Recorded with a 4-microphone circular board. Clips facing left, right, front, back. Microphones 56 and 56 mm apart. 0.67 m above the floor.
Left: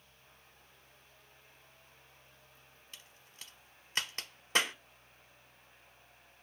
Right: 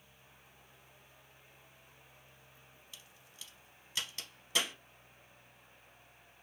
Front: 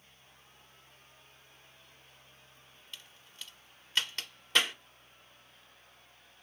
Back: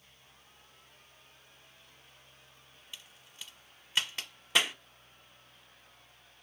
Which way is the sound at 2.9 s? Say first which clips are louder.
Left 2 dB, even; 100° left.